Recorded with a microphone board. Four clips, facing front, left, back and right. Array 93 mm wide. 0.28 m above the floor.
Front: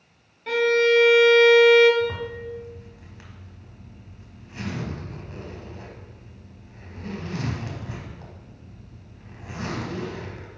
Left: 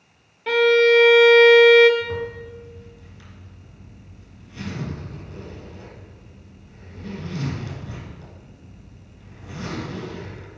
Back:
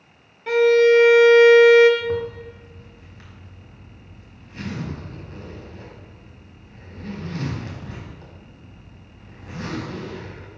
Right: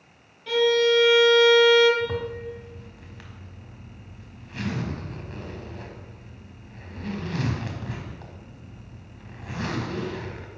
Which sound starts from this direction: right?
A zipper, at 2.0 s.